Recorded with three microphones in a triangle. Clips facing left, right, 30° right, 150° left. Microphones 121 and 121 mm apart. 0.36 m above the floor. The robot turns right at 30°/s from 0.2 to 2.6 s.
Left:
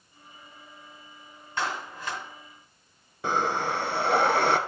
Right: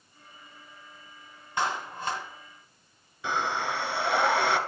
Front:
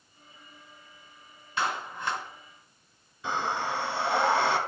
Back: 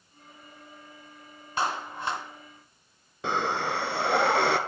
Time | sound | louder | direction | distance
1.6 | a clap | right 2 dB, back 1 dB | 165° right | 1.8 m
3.2 | breathing | left 3 dB, back 2 dB | 130° left | 0.8 m